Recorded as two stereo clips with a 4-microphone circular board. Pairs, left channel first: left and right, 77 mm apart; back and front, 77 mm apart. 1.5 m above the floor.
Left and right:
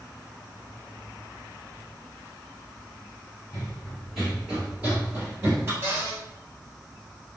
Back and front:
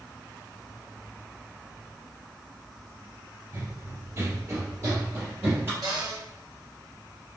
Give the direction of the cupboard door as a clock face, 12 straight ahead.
1 o'clock.